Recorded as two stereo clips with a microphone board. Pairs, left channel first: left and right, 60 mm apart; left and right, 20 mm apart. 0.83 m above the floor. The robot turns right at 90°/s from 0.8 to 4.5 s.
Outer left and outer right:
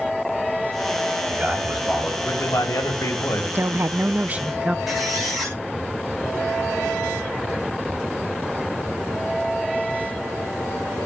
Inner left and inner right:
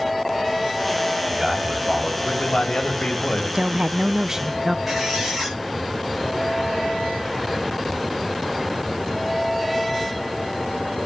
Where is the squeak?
Centre (ahead or behind), 9 m.